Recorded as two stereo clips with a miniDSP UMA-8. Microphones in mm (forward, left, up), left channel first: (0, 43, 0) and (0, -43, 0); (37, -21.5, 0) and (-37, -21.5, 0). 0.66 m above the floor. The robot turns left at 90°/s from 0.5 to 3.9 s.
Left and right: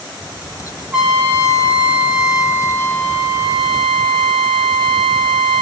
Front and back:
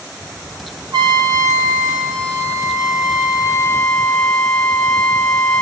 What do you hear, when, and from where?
0.9 s a trumpet: 165° right, 1.2 m; by 5.6 s 75° right, 1.2 m